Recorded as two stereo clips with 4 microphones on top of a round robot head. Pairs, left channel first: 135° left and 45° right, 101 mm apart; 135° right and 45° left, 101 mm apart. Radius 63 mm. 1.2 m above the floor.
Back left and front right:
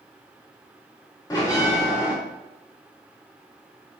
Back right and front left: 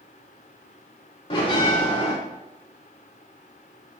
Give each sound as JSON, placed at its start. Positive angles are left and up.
{"t": 1.3, "sound": "a bell", "azimuth_deg": -175, "distance_m": 2.5}